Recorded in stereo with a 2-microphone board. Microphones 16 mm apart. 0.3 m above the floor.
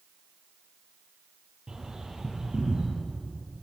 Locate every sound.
1.7 s a bird: 50° right (ahead or behind), 8.5 m